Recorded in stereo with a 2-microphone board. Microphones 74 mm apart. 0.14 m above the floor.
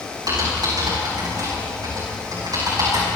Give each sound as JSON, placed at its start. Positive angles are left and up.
{"t": 0.3, "sound": "typing on a keyboard", "side_deg": -65, "distance_m": 8.5}